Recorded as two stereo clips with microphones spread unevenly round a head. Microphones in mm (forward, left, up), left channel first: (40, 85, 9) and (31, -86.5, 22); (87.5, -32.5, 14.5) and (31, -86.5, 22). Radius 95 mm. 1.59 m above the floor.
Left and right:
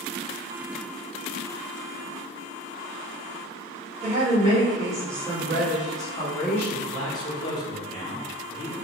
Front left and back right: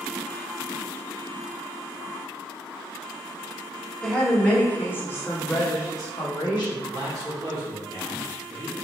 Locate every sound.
4.0 s a woman speaking: 40° right, 1.6 m; by 6.8 s 10° left, 1.9 m
6.9 s a man speaking: 155° left, 1.0 m